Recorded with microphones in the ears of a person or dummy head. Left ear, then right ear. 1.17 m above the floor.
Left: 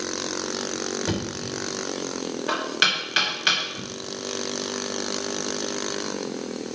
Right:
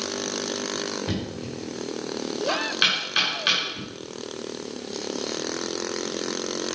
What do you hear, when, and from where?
1.1 s knocking: 20° left (ahead or behind), 2.5 m